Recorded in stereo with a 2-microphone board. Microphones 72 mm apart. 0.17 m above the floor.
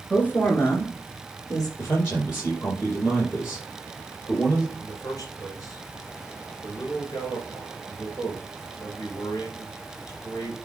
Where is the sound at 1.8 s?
35° left (ahead or behind), 4 m.